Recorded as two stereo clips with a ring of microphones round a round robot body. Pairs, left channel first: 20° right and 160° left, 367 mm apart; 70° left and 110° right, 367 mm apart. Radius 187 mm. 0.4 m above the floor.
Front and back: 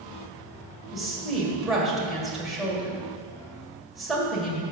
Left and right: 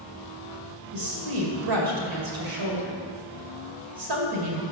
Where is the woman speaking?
115° right, 2.0 m.